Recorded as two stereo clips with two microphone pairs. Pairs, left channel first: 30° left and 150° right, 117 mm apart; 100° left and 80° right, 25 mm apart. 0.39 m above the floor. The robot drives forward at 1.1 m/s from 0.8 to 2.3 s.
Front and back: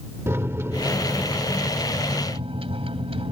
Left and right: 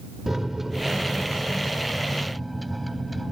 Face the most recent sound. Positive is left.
turn(degrees=-170)